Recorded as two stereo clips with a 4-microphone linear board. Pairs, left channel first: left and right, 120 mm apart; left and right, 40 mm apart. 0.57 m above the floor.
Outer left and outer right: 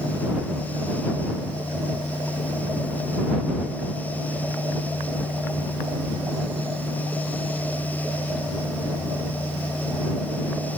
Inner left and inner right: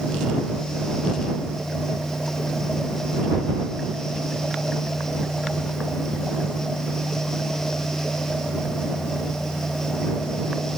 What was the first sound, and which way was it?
Only background noise.